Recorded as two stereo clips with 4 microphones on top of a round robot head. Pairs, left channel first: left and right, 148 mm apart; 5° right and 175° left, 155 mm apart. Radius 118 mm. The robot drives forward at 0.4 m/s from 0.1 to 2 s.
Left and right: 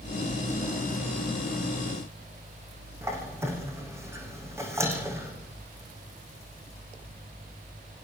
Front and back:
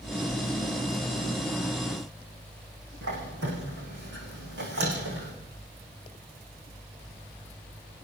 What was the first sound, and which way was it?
A squeak, 160° right.